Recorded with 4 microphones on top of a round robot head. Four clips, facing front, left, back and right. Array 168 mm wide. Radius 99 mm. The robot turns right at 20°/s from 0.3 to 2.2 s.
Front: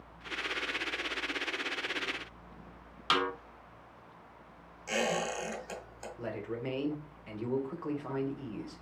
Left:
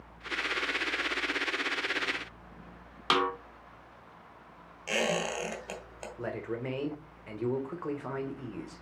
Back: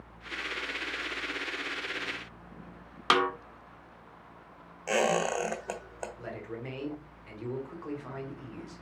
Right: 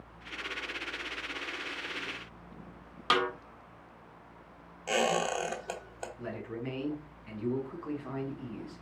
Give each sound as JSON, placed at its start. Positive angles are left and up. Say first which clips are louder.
{"t": 3.1, "sound": "a snare drum", "louder": "left 1 dB, back 5 dB", "azimuth_deg": 180, "distance_m": 1.5}
{"t": 4.9, "sound": "a squeak", "louder": "right 2 dB, back 5 dB", "azimuth_deg": -155, "distance_m": 1.5}
{"t": 6.2, "sound": "a man speaking", "louder": "left 5 dB, front 2 dB", "azimuth_deg": 70, "distance_m": 1.7}